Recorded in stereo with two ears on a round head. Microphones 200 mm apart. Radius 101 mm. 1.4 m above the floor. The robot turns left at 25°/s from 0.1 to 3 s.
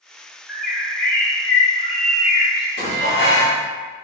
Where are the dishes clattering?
50° right (ahead or behind), 1.4 m; by 3.6 s 55° right (ahead or behind), 1.4 m.